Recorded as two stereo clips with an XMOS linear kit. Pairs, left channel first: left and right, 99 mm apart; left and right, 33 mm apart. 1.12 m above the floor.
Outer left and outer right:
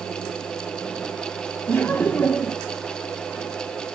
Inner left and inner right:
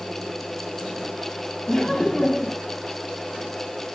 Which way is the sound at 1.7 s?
20° left (ahead or behind).